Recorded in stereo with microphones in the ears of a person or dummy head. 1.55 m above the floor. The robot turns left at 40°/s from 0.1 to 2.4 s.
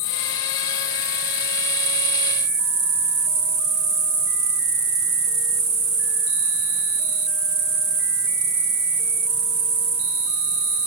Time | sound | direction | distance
0.0 | an insect | 20° left | 2 m